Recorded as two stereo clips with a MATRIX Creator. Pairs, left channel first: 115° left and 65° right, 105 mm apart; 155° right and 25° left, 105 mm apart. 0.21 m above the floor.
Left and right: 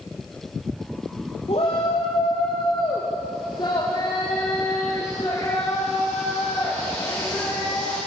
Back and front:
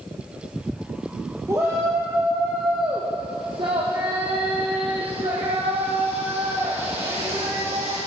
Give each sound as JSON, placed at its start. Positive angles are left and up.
{"t": 1.5, "sound": "a shout", "azimuth_deg": 90, "distance_m": 5.0}